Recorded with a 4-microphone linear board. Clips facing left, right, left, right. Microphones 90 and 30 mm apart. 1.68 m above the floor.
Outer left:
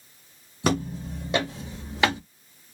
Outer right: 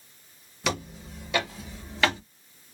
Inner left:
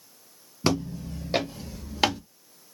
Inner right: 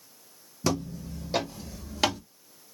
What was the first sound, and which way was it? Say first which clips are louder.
Footsteps: outer left 6 dB, inner left 3 dB; 35° left (ahead or behind).